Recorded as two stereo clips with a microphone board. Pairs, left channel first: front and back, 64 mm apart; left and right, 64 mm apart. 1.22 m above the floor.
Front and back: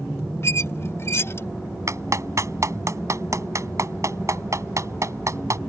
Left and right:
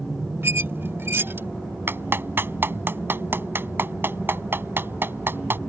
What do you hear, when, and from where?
0.4 s a squeak: 40° right
1.9 s a clap: 145° right